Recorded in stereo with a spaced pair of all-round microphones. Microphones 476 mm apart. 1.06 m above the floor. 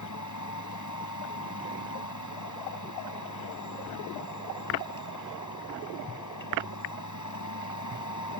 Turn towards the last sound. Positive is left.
turn(degrees=40)  # may be behind; listen again after turning